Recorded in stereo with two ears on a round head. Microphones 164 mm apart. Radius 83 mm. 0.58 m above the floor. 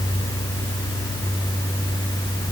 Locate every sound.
Only background noise.